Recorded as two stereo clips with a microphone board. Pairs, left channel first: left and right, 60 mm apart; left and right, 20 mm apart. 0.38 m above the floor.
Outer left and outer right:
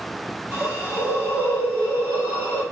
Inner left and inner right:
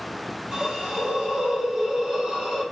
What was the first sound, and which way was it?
A hiss, 40° right (ahead or behind).